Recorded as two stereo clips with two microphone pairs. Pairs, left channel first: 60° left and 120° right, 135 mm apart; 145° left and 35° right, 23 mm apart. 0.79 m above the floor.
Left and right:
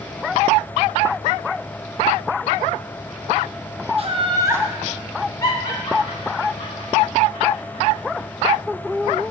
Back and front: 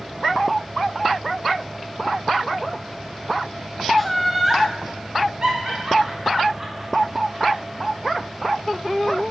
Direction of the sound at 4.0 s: 125° right.